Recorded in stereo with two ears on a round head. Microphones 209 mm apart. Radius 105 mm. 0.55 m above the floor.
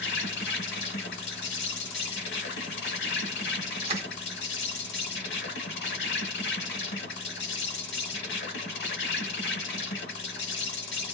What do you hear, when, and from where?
0.0 s an insect: 50° left (ahead or behind), 1.0 m
3.8 s crushing: 25° right (ahead or behind), 1.7 m